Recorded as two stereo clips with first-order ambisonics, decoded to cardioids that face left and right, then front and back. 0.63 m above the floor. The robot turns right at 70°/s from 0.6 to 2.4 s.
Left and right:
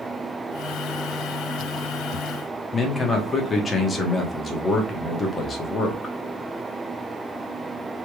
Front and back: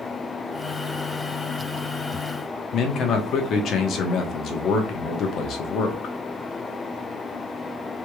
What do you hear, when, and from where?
2.7 s a man speaking: 25° left, 0.9 m